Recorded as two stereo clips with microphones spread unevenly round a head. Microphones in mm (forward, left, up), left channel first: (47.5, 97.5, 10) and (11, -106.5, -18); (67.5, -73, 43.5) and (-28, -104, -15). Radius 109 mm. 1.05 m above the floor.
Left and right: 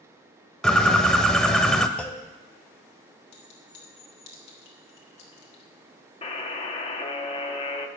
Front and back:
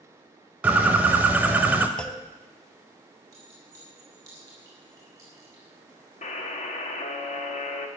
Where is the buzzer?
15° left, 1.4 m.